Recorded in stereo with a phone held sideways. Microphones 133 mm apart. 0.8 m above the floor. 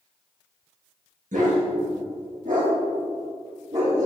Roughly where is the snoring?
I don't hear snoring.